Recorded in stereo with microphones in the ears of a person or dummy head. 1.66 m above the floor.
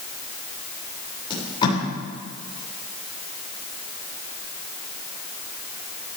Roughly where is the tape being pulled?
Left.